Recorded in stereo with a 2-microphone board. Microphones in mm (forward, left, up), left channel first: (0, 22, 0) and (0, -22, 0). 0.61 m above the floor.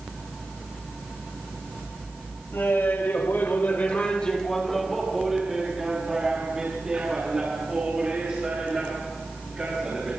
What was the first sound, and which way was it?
Laughter, 75° left (ahead or behind).